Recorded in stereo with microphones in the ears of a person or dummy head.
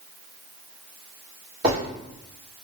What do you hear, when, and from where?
1.6 s a zipper: 30° right (ahead or behind), 2 m